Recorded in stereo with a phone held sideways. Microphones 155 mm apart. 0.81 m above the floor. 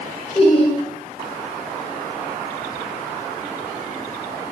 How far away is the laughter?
About 0.6 m.